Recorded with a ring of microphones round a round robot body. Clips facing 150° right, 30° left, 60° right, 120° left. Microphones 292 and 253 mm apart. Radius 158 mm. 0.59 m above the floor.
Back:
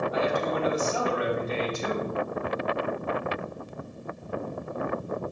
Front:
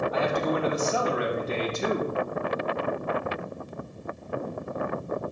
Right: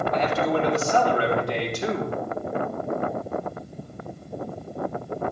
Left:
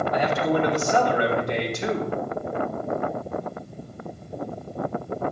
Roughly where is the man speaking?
Ahead left.